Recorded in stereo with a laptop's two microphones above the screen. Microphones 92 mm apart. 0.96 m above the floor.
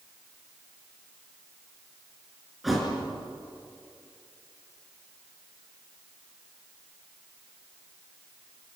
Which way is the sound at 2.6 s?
Centre (ahead or behind).